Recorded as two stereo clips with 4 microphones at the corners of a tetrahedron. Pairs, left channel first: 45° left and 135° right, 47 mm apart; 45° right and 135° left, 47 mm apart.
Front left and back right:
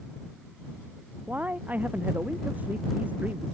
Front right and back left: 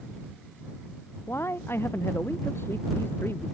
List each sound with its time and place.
1.3 s a man speaking: 80° right